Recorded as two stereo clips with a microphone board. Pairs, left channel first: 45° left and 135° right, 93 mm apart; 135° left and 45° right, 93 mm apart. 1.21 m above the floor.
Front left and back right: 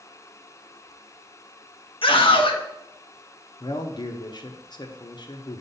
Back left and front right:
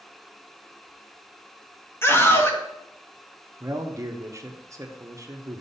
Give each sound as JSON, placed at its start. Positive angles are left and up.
{"t": 2.0, "sound": "a scream", "azimuth_deg": 70, "distance_m": 1.3}
{"t": 3.6, "sound": "a man speaking", "azimuth_deg": 10, "distance_m": 0.9}